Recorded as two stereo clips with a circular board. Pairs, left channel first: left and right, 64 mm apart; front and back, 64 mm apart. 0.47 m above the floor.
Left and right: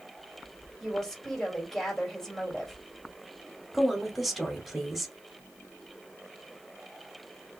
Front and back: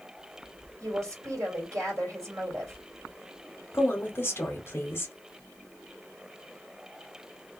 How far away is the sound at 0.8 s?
About 1.8 m.